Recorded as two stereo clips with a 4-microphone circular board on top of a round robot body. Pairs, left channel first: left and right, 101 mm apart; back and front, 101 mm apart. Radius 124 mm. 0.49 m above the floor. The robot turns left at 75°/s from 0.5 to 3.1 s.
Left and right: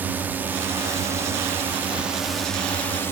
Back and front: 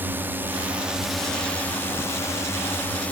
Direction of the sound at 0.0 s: 40° right.